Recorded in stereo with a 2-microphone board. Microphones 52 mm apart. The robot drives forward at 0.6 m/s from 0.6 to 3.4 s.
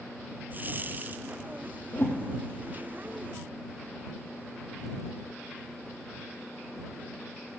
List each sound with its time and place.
1.9 s a whoosh: 55° left (ahead or behind), 0.5 m; by 2.2 s 40° left (ahead or behind), 0.6 m